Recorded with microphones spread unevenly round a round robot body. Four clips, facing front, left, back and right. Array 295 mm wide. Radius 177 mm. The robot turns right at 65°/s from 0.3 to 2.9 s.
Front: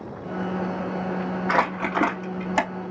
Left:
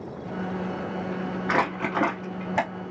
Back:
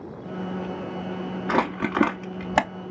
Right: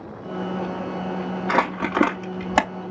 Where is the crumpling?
Straight behind, 0.5 m; by 2.7 s 105° right, 0.5 m.